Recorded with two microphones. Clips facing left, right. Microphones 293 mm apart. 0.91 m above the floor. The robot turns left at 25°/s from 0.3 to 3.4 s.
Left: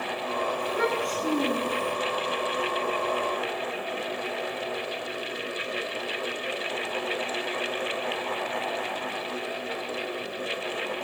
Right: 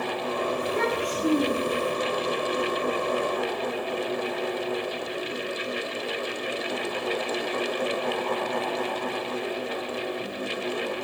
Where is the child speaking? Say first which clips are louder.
Right 1 dB; 85° right, 3.5 m; by 1.9 s 120° right, 3.5 m.